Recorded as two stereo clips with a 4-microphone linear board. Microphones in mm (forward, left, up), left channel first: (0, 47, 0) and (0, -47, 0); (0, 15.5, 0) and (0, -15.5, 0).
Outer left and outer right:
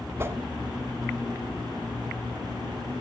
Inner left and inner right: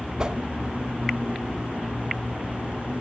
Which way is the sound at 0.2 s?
25° right (ahead or behind).